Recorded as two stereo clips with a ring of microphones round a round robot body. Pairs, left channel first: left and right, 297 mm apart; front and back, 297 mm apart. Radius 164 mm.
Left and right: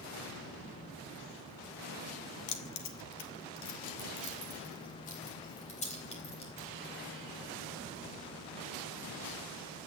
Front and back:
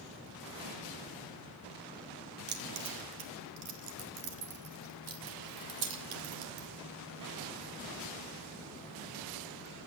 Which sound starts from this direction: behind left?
Keys jangling, at 2.5 s.